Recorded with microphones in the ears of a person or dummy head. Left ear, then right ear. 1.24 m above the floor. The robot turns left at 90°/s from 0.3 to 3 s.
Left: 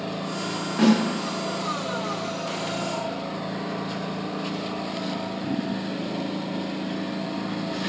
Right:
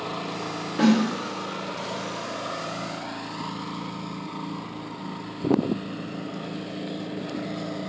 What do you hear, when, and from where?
0.8 s a snare drum: 15° left (ahead or behind), 1.1 m; by 1.1 s 10° right (ahead or behind), 1.1 m